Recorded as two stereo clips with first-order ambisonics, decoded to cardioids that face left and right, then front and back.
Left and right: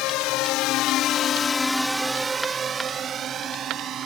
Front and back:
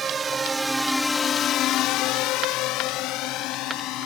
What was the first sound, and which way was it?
A drone, 115° left.